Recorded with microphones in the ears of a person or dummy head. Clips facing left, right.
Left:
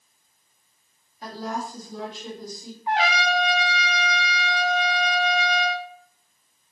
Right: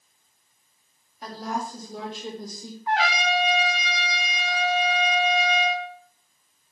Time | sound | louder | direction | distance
1.2 | a woman speaking | even | centre (ahead or behind) | 2.5 m
2.9 | a trumpet | left 1 dB | 15° left (ahead or behind) | 0.9 m